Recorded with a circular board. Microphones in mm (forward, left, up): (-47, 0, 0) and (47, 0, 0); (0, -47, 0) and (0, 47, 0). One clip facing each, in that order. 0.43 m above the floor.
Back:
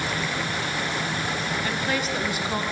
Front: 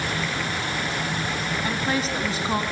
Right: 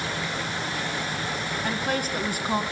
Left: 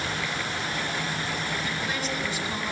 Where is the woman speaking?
55° right, 3 m.